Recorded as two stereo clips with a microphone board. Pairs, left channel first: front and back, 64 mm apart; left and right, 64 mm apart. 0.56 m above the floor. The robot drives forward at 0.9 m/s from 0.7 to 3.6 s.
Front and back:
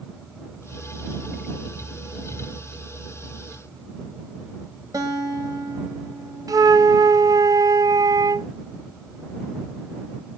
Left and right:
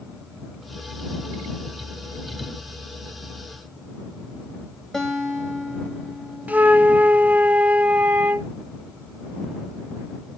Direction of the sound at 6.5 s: 155° right.